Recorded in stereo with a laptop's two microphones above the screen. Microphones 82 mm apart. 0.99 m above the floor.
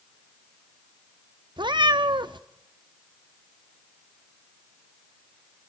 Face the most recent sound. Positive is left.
turn(degrees=-65)  # may be behind; listen again after turning